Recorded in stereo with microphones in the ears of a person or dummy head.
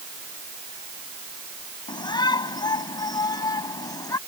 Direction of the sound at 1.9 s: 25° left (ahead or behind).